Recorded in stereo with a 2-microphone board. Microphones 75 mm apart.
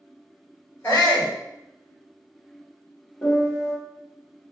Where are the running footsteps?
I don't hear running footsteps.